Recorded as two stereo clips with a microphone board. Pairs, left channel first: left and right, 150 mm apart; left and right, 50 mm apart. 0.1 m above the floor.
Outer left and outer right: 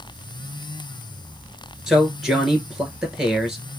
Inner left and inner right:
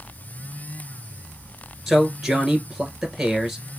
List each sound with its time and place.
1.9 s a man speaking: 5° right (ahead or behind), 1.4 m